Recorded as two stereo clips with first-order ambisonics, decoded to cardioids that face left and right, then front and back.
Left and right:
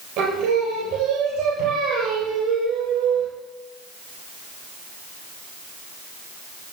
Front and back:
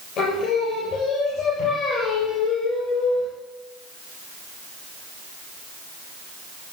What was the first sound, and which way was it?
Singing, 45° right.